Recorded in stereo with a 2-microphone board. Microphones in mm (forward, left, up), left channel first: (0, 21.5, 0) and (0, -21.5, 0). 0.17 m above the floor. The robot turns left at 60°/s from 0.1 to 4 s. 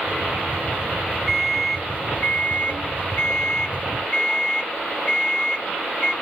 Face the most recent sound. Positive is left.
turn(degrees=20)